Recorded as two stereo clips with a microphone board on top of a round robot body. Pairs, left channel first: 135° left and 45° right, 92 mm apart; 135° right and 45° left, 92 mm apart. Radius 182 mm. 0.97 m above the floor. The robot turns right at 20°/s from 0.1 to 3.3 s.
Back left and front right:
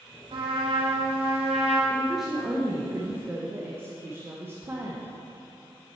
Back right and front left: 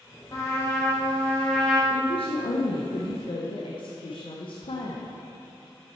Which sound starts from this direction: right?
A trumpet, at 0.3 s.